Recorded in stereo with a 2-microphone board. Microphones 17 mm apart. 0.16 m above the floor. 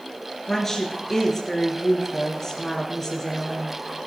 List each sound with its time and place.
0.5 s a woman speaking: 25° left (ahead or behind), 3 m